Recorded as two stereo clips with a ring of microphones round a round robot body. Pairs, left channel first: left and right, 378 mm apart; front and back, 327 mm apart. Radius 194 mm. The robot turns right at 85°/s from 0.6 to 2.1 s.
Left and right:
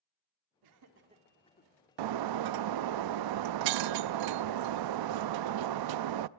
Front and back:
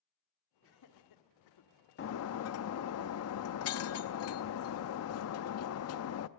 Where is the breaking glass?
65° right, 0.5 m; by 6.3 s 50° right, 0.5 m.